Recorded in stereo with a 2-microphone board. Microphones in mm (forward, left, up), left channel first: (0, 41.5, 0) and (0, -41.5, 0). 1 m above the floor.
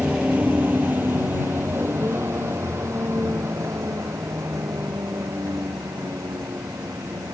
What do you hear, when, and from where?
0.0 s a vehicle: 10° right (ahead or behind); by 7.3 s 45° right (ahead or behind)